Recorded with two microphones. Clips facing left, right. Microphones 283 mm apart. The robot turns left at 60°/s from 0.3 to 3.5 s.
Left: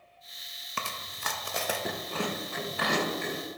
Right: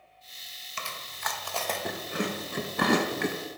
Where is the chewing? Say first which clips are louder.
Left 1 dB; 65° left (ahead or behind), 0.5 m; by 3.4 s 80° right, 0.5 m.